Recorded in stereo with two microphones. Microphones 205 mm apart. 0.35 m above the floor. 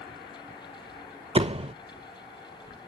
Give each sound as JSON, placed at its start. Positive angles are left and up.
{"t": 1.4, "sound": "a door slam", "side_deg": -30, "distance_m": 0.6}